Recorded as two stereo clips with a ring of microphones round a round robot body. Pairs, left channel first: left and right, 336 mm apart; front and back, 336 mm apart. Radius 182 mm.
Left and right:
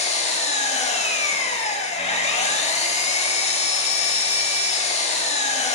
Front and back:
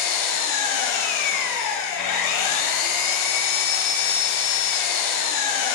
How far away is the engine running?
About 1.1 m.